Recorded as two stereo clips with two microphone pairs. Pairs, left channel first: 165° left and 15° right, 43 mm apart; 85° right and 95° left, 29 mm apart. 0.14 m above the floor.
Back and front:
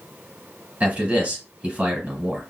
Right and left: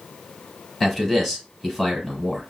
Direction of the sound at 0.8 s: Straight ahead.